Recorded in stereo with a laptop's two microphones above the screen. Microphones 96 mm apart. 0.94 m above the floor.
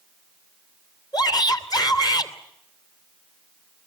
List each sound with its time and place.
1.1 s a shout: 45° left (ahead or behind), 2.5 m